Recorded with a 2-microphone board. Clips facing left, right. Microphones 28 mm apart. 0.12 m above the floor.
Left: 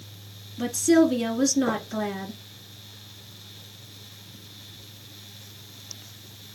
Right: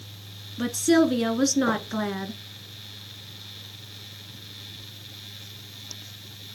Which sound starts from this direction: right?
A woman speaking, at 0.6 s.